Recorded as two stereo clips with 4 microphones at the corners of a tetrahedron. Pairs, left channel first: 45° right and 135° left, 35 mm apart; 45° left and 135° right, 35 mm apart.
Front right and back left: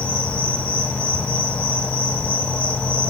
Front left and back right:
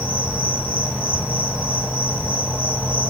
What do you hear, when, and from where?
0.0 s an insect: 80° right, 8 m